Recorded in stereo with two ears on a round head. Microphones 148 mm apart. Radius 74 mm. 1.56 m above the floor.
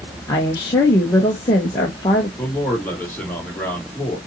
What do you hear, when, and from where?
0.3 s a woman speaking: 20° left (ahead or behind), 1.2 m
2.4 s a man speaking: 10° left (ahead or behind), 3 m